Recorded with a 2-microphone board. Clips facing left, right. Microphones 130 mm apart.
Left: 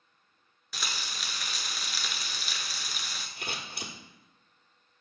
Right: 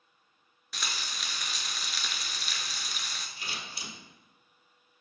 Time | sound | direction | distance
0.7 | frying | centre (ahead or behind) | 0.6 m
3.4 | scissors | 60° left (ahead or behind) | 1.2 m